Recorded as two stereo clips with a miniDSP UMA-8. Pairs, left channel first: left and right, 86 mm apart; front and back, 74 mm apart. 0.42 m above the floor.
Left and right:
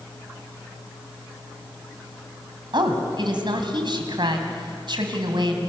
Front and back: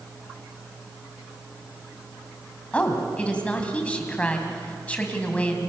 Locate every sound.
2.7 s a woman speaking: 75° right, 3 m